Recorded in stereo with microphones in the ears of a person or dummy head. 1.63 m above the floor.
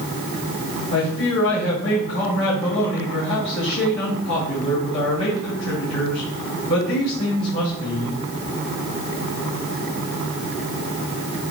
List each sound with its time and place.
0.9 s a man speaking: 55° left (ahead or behind), 4.5 m